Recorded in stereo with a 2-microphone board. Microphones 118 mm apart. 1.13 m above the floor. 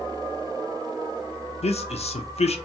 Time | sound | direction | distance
1.6 | a man speaking | 60° left (ahead or behind) | 0.5 m